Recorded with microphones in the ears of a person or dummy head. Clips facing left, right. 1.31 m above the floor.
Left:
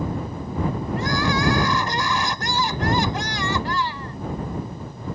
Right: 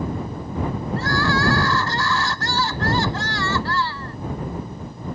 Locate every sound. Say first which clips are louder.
1.0 s crying: right 1 dB; 15° left (ahead or behind)